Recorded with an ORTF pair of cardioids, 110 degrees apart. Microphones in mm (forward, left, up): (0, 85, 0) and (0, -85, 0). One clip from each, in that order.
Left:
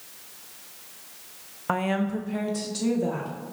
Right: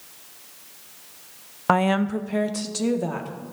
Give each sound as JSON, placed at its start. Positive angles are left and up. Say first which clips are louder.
{"t": 1.7, "sound": "a woman speaking", "louder": "right 6 dB", "azimuth_deg": -35, "distance_m": 0.5}